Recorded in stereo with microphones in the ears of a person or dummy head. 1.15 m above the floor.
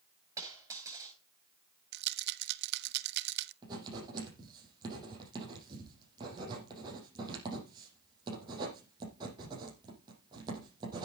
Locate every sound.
0.4 s a dropped coin: 20° right (ahead or behind), 10 m
1.9 s a rattle: 70° right (ahead or behind), 0.8 m
3.6 s writing: 30° right (ahead or behind), 7 m